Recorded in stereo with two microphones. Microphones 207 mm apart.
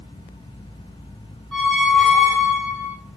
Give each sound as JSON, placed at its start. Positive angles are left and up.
{"t": 1.5, "sound": "a squeak", "side_deg": 5, "distance_m": 0.6}